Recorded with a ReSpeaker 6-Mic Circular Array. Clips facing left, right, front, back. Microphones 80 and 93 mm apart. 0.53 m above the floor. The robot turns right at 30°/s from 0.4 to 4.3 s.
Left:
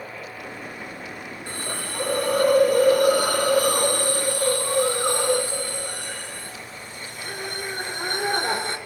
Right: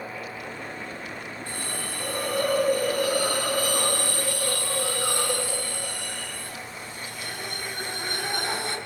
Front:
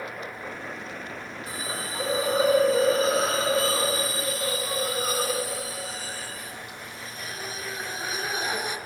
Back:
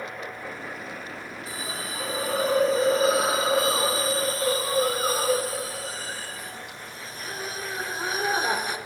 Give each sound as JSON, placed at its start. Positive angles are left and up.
{"t": 1.5, "sound": "a hiss", "azimuth_deg": 50, "distance_m": 5.0}